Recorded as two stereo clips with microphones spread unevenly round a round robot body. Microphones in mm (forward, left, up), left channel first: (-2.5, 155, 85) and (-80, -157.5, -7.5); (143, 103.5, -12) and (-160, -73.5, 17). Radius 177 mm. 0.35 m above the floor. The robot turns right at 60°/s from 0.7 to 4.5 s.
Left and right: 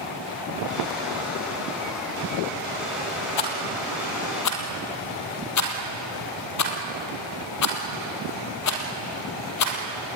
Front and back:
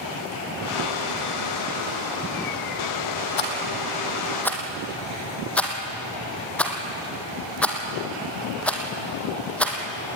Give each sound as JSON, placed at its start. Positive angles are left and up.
{"t": 3.4, "sound": "a rattle", "azimuth_deg": 50, "distance_m": 3.0}